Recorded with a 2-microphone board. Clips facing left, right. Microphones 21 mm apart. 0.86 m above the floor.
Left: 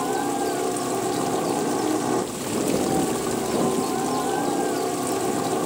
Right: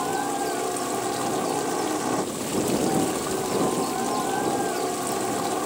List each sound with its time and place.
0.0 s a helicopter: 10° right (ahead or behind)